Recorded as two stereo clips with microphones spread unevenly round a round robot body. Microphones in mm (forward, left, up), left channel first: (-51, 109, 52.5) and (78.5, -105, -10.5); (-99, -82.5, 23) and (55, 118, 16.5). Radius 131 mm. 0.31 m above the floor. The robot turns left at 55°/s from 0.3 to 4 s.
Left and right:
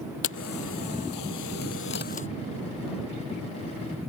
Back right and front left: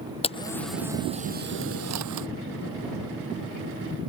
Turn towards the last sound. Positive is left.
turn(degrees=-40)